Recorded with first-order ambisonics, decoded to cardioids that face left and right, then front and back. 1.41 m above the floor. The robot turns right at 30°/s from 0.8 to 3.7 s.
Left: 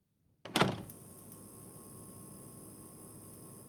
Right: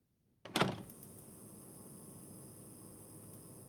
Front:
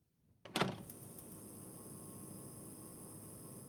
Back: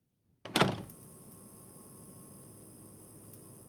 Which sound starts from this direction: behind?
A door slam, at 0.5 s.